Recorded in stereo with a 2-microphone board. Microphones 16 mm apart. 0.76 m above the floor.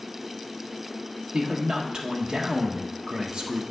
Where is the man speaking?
60° right (ahead or behind), 1.2 m.